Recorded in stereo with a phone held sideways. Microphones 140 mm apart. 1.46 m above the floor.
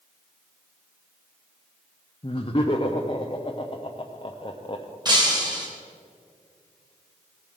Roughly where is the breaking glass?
Right.